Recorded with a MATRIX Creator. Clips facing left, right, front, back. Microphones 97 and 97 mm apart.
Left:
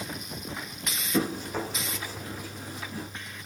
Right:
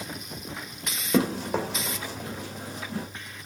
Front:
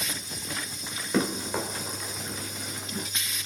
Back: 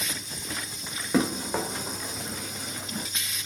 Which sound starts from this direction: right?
Running footsteps, at 1.1 s.